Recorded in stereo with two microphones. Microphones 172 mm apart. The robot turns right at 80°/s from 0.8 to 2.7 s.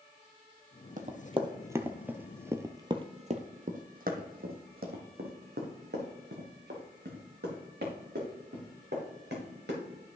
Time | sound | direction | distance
1.0 | running footsteps | 55° right (ahead or behind) | 1.1 m